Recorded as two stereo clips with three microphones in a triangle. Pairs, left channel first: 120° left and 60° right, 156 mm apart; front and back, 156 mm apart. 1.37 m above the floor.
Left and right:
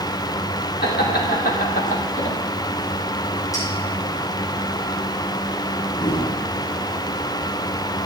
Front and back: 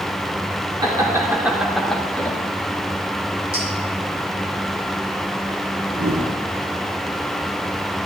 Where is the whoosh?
175° right, 1.4 m.